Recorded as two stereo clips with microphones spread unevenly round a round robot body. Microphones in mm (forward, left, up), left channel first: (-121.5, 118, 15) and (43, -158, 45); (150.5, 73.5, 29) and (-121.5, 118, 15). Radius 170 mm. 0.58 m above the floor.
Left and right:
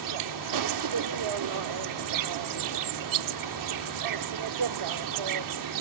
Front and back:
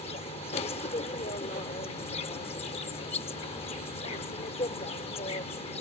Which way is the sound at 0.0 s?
80° right.